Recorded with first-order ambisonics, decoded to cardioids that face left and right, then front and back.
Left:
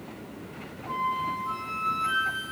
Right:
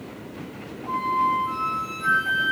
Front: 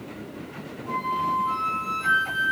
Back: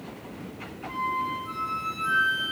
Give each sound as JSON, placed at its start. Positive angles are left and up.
{"t": 0.9, "sound": "a flute", "azimuth_deg": -35, "distance_m": 1.7}